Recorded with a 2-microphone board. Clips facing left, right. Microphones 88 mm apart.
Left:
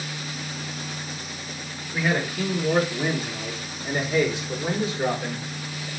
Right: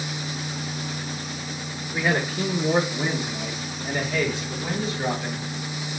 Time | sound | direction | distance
1.9 | a man speaking | 20° right (ahead or behind) | 1.0 m